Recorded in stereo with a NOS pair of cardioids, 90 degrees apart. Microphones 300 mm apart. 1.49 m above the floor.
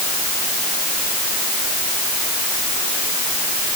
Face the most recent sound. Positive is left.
No sound to turn to.